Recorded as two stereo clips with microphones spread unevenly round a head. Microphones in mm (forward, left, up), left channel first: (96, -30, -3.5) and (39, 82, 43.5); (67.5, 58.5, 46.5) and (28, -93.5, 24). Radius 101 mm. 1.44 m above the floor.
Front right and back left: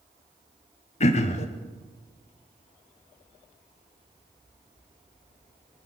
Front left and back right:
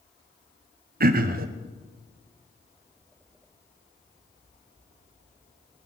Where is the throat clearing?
85° right, 1.0 m.